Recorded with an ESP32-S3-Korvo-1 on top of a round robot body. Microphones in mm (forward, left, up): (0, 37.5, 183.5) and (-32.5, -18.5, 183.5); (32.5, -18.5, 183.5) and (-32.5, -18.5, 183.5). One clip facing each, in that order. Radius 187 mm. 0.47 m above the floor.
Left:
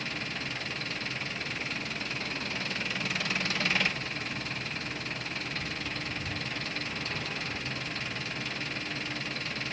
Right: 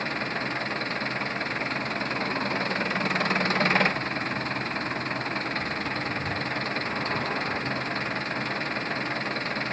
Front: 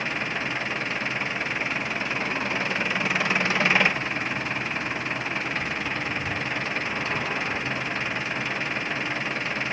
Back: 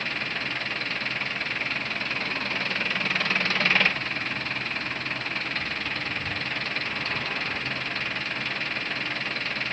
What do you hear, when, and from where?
0.0 s an engine running: 75° right